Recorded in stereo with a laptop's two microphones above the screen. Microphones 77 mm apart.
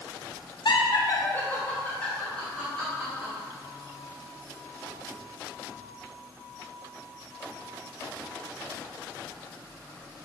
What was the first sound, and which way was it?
Laughter, 70° left (ahead or behind).